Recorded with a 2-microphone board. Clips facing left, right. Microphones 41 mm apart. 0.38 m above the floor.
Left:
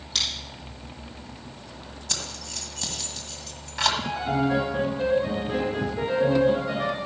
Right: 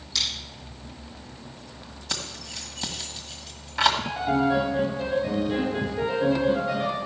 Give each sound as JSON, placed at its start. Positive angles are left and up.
{"t": 0.1, "sound": "scissors", "side_deg": 45, "distance_m": 4.5}
{"t": 2.1, "sound": "keys jangling", "side_deg": -10, "distance_m": 1.5}
{"t": 4.0, "sound": "a piano", "side_deg": 30, "distance_m": 6.0}